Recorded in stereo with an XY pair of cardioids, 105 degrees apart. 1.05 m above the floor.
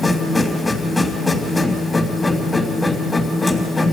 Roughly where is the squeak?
No squeak in this recording.